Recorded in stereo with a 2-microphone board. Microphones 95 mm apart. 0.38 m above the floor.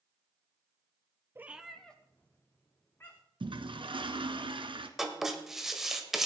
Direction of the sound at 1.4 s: 25° right (ahead or behind).